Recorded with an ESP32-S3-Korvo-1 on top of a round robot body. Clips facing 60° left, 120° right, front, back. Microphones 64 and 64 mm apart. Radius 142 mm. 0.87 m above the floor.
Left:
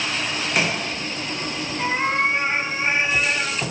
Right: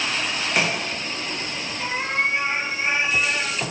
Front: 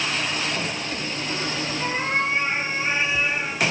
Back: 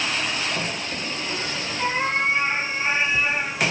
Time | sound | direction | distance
1.8 | a cat meowing | 120° left | 4 m